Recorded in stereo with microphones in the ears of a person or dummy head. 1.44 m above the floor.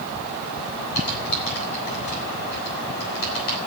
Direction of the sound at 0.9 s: 60° left (ahead or behind).